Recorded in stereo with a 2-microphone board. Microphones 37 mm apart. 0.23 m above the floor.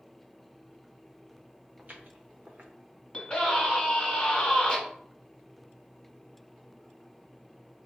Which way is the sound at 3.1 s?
30° left (ahead or behind).